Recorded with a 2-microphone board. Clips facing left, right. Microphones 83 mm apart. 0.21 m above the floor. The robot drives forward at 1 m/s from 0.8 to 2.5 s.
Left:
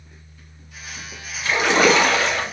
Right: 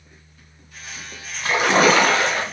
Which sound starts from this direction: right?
A splash, at 1.4 s.